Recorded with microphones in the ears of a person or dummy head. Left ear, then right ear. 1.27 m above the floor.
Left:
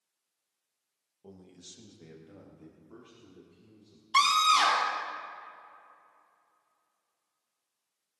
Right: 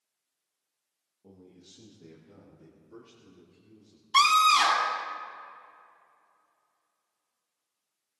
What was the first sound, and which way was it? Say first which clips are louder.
A man speaking: left 3 dB; 80° left.